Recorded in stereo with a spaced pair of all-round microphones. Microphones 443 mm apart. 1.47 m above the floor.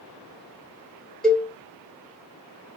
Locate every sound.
1.2 s a cowbell: centre (ahead or behind), 1.5 m